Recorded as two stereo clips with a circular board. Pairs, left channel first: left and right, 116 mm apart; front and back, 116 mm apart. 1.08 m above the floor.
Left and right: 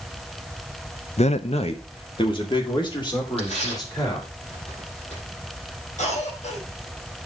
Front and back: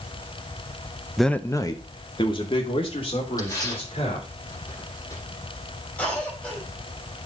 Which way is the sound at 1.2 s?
90° left.